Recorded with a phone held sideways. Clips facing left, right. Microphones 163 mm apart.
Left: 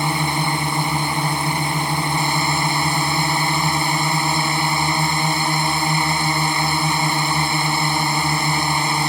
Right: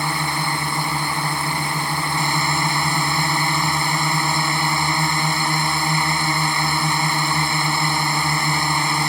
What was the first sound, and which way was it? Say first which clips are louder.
A drone: left 3 dB; 20° left (ahead or behind).